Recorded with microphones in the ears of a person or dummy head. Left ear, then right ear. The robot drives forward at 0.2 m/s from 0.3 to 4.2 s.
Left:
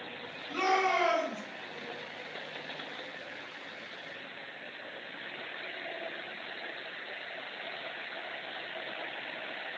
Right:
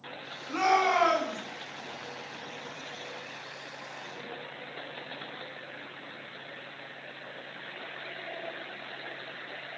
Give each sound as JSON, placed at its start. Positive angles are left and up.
{"t": 0.5, "sound": "a shout", "side_deg": -75, "distance_m": 2.5}